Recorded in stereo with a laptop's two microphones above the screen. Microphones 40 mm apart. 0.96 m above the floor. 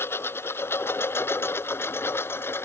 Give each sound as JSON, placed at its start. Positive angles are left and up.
{"t": 0.0, "sound": "a lawn mower", "side_deg": 80}